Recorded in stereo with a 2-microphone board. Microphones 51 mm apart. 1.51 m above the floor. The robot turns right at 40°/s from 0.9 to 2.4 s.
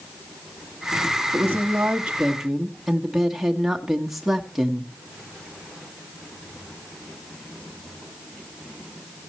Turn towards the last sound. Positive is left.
turn(degrees=-5)